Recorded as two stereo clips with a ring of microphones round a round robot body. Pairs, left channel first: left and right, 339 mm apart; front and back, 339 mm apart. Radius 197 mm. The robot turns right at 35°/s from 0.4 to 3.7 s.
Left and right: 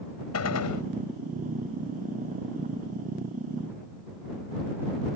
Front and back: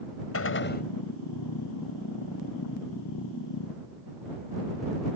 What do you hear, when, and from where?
0.3 s a gunshot: 50° left; by 0.8 s 65° left